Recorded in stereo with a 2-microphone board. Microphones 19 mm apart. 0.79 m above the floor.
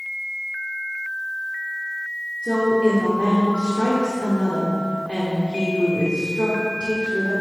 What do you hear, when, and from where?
2.4 s a woman speaking: 65° left (ahead or behind), 1.7 m